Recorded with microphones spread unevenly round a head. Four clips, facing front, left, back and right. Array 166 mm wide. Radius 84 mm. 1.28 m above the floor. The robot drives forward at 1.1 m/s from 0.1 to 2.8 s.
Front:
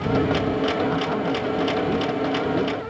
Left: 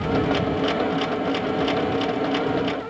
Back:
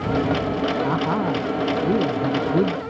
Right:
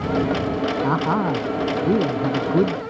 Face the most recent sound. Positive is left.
turn(degrees=-120)